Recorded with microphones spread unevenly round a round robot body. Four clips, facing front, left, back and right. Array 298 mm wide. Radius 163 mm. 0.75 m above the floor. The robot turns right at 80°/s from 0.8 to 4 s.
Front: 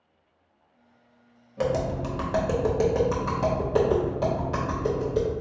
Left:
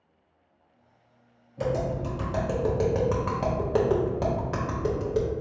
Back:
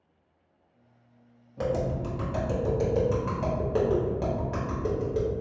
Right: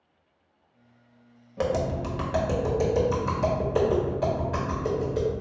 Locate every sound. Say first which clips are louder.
1.6 s tapping: right 1 dB, front 2 dB; 75° right, 1.1 m; by 5.3 s 120° left, 1.1 m